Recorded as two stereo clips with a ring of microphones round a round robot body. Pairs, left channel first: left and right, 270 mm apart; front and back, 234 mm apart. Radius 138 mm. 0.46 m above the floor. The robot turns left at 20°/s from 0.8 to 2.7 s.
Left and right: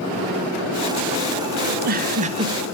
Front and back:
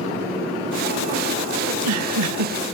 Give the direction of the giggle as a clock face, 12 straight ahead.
5 o'clock.